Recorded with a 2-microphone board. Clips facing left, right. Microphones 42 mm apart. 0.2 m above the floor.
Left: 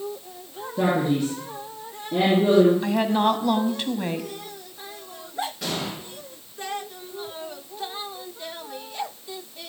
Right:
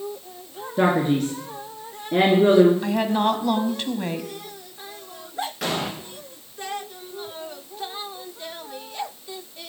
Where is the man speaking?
65° right (ahead or behind), 3 m.